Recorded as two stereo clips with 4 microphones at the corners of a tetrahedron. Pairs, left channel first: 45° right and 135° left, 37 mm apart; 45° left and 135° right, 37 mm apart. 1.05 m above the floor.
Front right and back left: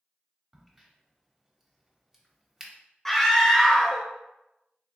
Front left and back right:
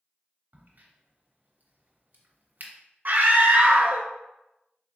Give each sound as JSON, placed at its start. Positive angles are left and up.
{"t": 0.5, "sound": "a crack", "azimuth_deg": -145, "distance_m": 0.7}
{"t": 3.0, "sound": "a scream", "azimuth_deg": -125, "distance_m": 0.8}